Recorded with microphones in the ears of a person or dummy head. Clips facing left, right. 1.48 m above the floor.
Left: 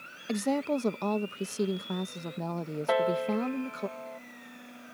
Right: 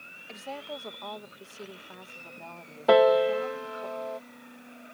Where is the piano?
60° right (ahead or behind).